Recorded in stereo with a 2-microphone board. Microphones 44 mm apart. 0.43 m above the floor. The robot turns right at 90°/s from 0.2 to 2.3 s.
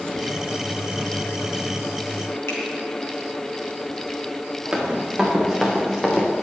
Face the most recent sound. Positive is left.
turn(degrees=10)  # may be behind; listen again after turning